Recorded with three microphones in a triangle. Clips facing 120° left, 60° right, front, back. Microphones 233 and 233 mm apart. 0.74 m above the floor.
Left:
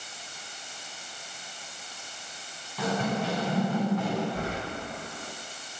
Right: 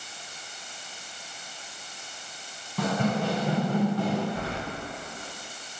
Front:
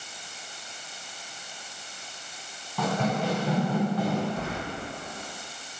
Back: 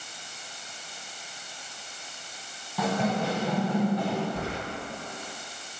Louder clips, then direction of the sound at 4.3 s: Left 1 dB, even; 165° left.